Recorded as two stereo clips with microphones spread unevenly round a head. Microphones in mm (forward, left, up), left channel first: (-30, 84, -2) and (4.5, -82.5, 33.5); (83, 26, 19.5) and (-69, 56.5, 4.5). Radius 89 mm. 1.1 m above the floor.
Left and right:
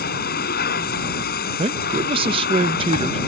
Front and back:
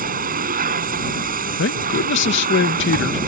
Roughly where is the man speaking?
Ahead.